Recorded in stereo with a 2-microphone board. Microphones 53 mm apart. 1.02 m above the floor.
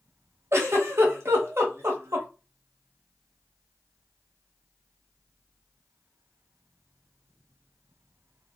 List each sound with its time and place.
0.5 s a giggle: 55° right (ahead or behind), 1.1 m